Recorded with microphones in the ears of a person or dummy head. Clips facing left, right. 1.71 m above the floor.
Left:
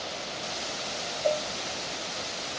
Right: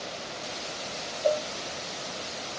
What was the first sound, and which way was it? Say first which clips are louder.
A cowbell: right 2 dB; 40° right (ahead or behind).